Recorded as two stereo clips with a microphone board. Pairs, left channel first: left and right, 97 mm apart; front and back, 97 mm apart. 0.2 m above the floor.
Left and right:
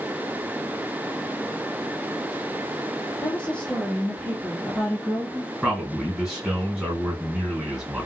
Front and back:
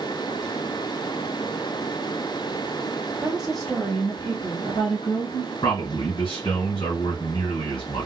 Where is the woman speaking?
140° left, 1.3 m; by 5.5 s 5° right, 2.5 m.